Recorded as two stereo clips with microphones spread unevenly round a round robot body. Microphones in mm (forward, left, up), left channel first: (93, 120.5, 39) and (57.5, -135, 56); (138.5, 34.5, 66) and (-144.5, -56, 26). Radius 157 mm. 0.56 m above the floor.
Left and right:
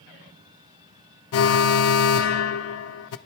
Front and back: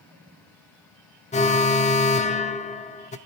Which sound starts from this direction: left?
An alarm, at 1.3 s.